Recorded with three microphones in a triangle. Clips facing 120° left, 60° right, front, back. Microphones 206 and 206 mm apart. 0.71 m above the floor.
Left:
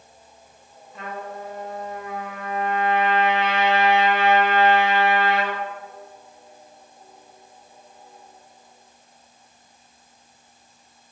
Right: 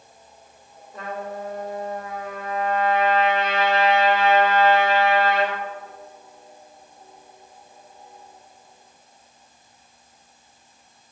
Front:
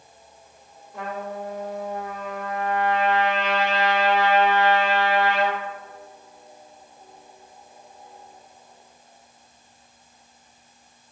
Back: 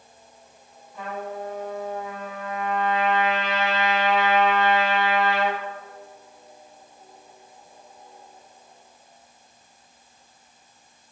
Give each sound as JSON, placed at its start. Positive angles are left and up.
{"t": 0.9, "sound": "a trumpet", "azimuth_deg": -15, "distance_m": 1.1}